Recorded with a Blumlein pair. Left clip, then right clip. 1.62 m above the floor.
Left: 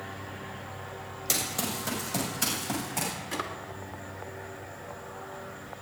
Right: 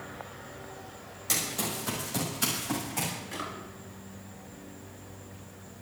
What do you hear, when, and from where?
1.3 s running footsteps: 15° left, 6 m
3.3 s a drawer: 70° left, 2 m